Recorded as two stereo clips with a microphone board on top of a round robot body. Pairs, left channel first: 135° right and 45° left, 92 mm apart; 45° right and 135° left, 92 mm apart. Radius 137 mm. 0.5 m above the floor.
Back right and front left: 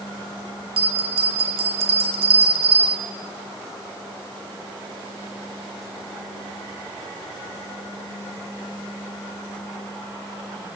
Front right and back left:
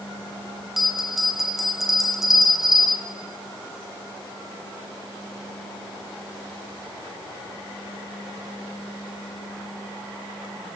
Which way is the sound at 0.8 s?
45° left.